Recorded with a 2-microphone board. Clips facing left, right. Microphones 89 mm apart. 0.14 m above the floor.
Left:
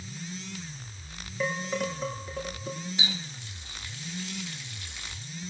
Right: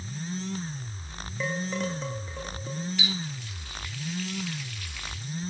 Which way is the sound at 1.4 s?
5° left (ahead or behind).